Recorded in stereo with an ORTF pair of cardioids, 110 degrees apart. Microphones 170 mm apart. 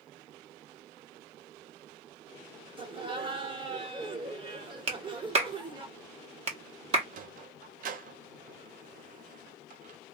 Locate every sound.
2.8 s laughter: 30° right, 1.1 m
4.9 s a clap: 35° right, 1.0 m
7.1 s a sliding door: 50° right, 0.6 m